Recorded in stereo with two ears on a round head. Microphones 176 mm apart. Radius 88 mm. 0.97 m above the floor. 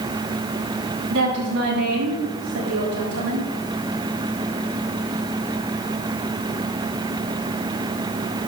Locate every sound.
1.1 s a woman speaking: 80° right, 6.5 m